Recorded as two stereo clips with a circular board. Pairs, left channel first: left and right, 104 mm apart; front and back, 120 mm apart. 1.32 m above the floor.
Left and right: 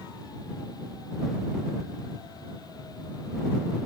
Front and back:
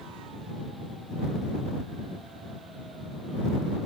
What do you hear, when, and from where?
Only background noise.